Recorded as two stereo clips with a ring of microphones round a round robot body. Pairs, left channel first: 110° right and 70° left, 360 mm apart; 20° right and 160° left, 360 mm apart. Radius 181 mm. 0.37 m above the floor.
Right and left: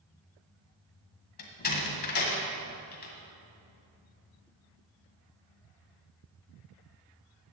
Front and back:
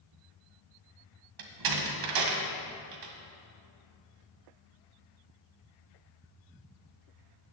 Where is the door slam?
175° right, 1.6 m.